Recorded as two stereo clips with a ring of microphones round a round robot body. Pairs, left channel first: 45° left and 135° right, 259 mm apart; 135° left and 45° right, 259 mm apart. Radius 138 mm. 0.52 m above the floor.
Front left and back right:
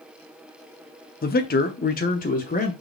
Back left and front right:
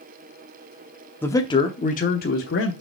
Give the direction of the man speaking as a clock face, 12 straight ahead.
10 o'clock.